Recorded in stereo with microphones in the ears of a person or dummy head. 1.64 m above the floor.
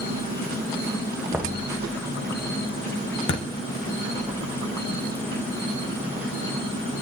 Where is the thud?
35° left (ahead or behind), 1.1 m.